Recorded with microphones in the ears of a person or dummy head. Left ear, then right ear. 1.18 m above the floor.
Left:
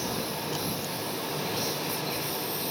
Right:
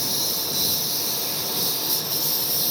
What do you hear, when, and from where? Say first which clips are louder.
0.0 s a lawn mower: right 6 dB; 35° right (ahead or behind); by 2.7 s 30° right (ahead or behind)